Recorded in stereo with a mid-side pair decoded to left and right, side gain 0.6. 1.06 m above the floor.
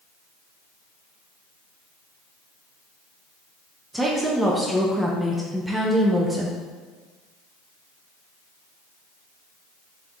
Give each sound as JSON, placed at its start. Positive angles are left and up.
{"t": 3.9, "sound": "a woman speaking", "azimuth_deg": -10, "distance_m": 0.7}